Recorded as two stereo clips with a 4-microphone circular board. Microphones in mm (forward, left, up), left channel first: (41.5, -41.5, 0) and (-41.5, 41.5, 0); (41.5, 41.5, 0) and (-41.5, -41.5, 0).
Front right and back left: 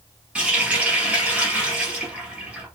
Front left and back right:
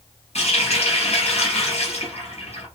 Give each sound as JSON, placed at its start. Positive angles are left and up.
{"t": 0.3, "sound": "a running tap", "azimuth_deg": 55, "distance_m": 2.0}